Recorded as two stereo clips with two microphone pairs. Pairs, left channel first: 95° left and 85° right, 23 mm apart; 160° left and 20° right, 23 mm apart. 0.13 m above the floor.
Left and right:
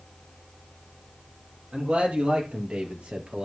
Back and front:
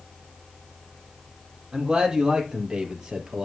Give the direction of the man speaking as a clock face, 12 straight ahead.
2 o'clock.